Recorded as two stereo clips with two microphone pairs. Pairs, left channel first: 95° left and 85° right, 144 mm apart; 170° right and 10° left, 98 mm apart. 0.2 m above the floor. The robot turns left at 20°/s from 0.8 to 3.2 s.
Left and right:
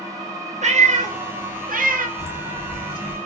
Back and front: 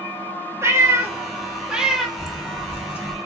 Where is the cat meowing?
50° right, 0.6 m; by 2.1 s 75° right, 0.6 m.